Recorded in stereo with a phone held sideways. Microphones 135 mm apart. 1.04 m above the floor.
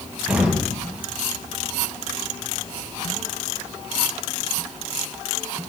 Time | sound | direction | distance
0.3 | an explosion | 10° right (ahead or behind) | 5.5 m